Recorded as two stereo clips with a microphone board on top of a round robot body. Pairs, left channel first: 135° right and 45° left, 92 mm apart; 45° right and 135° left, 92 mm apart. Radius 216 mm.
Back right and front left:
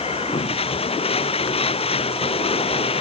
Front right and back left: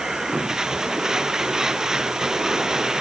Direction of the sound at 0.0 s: 140° right.